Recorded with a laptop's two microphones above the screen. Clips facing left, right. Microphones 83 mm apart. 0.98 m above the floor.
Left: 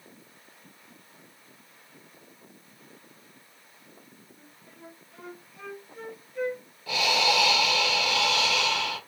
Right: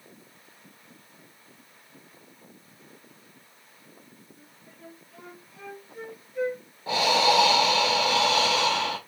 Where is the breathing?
35° right (ahead or behind), 0.9 m.